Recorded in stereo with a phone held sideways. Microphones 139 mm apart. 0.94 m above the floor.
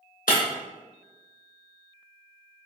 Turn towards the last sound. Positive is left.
turn(degrees=75)  # may be behind; listen again after turning